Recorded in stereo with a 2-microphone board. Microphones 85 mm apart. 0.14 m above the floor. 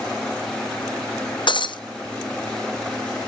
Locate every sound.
1.5 s breaking glass: 85° left, 1.2 m